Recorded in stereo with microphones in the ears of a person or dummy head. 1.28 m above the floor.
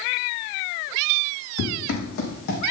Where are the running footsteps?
65° left (ahead or behind), 5 m; by 2.6 s 60° left (ahead or behind), 4 m.